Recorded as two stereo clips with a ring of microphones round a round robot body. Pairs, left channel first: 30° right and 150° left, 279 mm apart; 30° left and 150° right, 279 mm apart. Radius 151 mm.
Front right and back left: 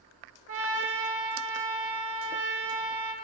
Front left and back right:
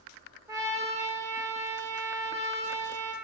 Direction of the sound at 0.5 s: 135° left.